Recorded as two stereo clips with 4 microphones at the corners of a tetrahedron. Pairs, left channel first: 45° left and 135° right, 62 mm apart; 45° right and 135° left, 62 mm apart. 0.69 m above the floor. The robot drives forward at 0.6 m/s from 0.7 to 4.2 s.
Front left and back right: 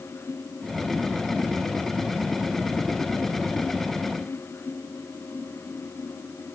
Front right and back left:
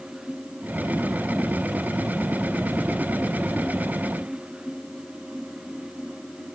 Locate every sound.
Only background noise.